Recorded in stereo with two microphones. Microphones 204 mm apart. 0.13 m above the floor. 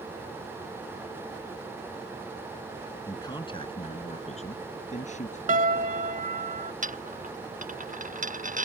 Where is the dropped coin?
40° right (ahead or behind).